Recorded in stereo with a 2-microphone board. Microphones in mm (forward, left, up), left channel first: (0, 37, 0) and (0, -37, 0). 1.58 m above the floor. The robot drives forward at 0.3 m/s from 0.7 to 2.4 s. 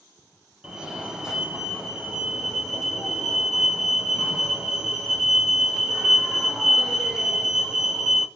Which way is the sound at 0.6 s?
5° right (ahead or behind).